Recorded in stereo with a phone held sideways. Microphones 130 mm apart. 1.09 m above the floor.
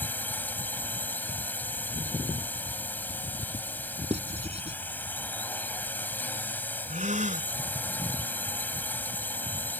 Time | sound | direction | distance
0.0 | a drone | 15° left (ahead or behind) | ?
4.1 | writing | 55° right (ahead or behind) | ?
6.9 | a gasp | 70° right (ahead or behind) | ?